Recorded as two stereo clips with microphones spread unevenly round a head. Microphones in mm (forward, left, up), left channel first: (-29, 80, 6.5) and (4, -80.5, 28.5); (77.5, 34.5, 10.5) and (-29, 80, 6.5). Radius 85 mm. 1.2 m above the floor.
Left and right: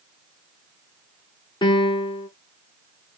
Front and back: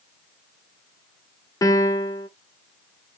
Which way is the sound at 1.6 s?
40° left.